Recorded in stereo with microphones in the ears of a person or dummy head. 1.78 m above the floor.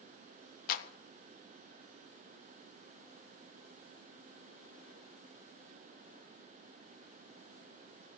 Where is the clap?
55° left (ahead or behind), 1.6 m.